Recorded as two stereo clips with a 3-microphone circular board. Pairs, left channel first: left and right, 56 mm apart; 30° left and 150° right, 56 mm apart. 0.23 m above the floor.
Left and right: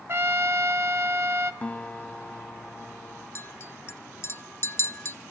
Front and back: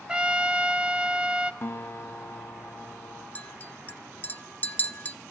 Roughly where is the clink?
Left.